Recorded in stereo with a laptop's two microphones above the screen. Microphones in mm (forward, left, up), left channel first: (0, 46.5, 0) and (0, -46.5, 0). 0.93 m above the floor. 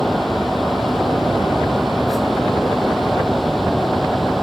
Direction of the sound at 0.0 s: Centre (ahead or behind).